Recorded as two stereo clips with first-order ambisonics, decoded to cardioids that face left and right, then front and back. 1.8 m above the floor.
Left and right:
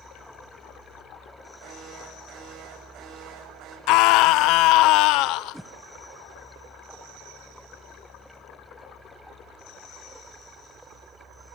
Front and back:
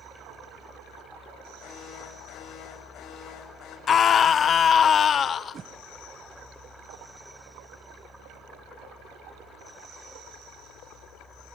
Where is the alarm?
45° right, 8.5 m.